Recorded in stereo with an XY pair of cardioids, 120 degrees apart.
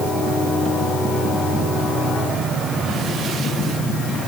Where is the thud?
No thud in this recording.